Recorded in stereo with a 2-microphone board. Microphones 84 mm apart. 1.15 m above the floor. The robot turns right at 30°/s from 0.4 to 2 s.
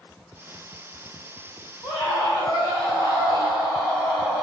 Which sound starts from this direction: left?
A scream, at 1.8 s.